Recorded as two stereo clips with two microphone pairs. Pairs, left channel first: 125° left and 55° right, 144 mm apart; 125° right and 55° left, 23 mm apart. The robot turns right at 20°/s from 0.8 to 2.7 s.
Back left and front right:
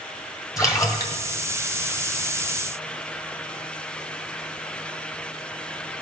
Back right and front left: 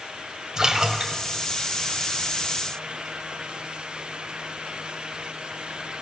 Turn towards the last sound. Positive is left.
turn(degrees=135)